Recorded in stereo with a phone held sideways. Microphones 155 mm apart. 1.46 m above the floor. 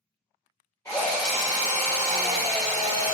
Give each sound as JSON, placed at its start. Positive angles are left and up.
{"t": 0.8, "sound": "a drill", "side_deg": 20, "distance_m": 1.9}